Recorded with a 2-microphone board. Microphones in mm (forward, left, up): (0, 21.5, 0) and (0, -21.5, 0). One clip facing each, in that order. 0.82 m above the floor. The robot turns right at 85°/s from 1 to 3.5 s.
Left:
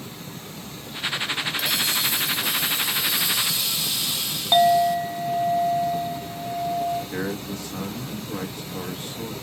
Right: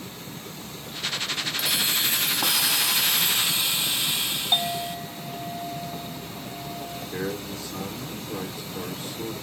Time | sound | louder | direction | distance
1.6 | a hiss | right 2 dB | straight behind | 0.8 m
4.5 | a clink | left 12 dB | 20° left (ahead or behind) | 0.6 m
7.1 | a man speaking | left 2 dB | 60° left (ahead or behind) | 1.2 m